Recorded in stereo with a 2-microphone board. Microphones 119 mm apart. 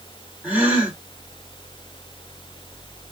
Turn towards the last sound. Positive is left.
turn(degrees=-15)  # may be behind; listen again after turning